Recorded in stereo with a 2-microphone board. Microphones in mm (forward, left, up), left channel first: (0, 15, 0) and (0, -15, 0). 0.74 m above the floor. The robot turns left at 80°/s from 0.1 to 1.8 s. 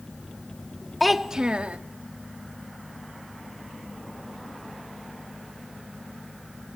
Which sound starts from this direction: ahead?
A child speaking, at 1.0 s.